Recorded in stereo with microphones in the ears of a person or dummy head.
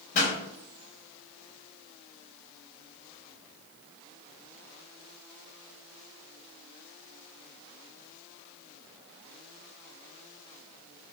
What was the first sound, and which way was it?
A pop, 50° left (ahead or behind).